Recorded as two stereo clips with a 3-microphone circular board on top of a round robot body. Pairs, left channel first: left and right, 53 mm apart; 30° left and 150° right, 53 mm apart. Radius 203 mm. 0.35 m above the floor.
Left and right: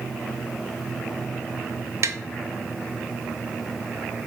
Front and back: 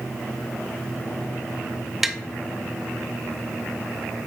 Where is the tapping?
65° right, 0.8 m.